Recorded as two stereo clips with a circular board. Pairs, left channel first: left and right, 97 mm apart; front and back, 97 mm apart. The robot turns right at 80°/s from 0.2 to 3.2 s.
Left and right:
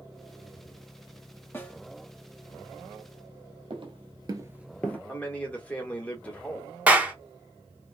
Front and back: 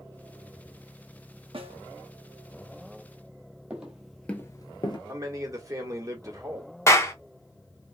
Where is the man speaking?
155° left, 1.1 m.